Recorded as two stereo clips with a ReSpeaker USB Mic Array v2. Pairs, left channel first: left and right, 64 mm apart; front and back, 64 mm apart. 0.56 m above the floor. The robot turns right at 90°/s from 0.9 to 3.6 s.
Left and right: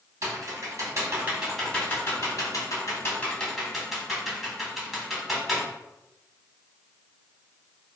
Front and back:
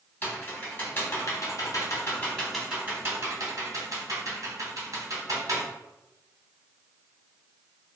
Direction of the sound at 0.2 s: 60° right.